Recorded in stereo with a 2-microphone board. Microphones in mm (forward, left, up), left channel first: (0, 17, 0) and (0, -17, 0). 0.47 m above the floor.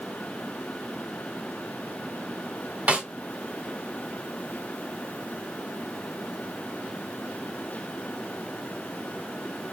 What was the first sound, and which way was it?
A snare drum, 50° right (ahead or behind).